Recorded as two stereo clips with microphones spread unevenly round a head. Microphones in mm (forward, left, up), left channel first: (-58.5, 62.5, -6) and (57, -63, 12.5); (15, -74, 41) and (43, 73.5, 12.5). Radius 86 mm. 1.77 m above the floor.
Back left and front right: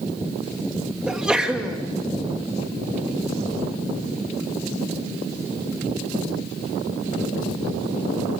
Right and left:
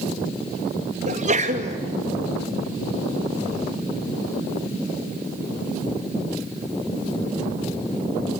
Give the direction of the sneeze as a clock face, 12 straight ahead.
11 o'clock.